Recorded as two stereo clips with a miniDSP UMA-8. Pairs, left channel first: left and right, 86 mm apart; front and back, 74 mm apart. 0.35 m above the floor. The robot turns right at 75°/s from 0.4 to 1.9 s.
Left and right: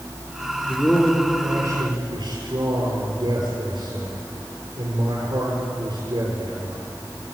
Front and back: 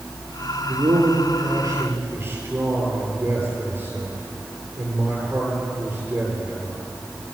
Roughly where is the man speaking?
Behind left.